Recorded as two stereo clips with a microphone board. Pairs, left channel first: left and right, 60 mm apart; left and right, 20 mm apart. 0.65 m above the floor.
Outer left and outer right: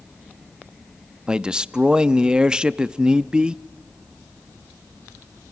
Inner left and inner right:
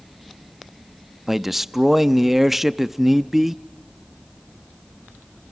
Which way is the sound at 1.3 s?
15° right (ahead or behind).